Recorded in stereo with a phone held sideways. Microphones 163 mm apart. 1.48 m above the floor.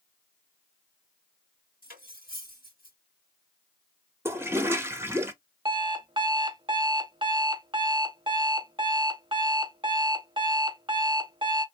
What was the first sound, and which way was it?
Cutlery clinking, 65° left (ahead or behind).